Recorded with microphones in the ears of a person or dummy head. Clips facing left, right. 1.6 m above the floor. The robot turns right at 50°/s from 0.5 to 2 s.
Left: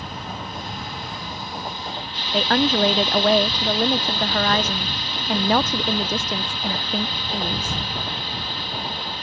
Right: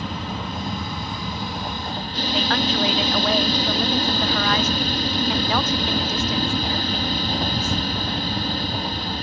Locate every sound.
0.0 s an aircraft: 115° right; by 9.2 s 40° right
2.3 s a woman speaking: 35° left (ahead or behind)